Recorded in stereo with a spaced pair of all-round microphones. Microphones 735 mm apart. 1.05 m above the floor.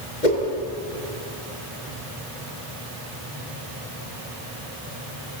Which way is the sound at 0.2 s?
80° left.